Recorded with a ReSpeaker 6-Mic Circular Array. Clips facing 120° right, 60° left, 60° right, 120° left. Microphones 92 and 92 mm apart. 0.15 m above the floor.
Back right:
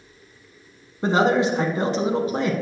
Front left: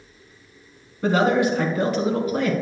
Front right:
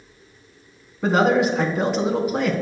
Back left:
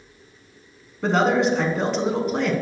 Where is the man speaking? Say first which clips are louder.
Even, front right 1 dB; 135° right, 1.1 m.